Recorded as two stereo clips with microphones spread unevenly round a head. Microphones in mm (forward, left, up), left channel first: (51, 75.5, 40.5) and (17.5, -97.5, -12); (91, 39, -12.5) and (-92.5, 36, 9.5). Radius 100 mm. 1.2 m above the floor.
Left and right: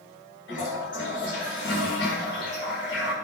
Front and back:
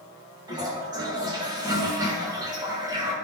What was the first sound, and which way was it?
A toilet flushing, 115° left.